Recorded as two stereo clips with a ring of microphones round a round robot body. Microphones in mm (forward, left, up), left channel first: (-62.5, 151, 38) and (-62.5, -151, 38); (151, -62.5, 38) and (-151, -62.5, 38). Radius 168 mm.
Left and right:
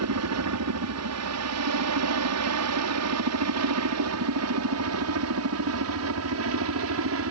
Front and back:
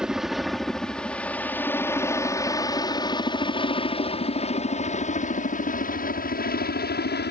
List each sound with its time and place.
0.0 s a helicopter: 95° right; by 7.3 s 50° right